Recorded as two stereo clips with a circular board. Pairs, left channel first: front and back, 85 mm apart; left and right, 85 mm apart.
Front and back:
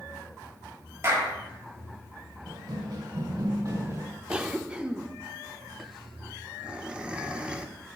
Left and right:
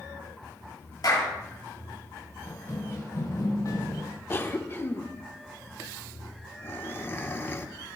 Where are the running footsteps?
150° left, 4.5 m; by 4.1 s 125° left, 4.5 m.